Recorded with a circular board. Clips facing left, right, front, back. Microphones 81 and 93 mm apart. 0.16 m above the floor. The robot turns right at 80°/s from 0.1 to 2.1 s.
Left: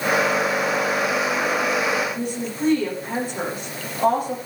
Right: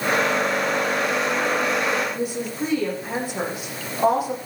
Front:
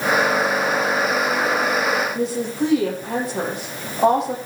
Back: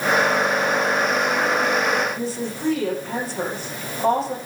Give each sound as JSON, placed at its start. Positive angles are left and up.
{"t": 2.1, "sound": "a woman speaking", "azimuth_deg": -10, "distance_m": 8.0}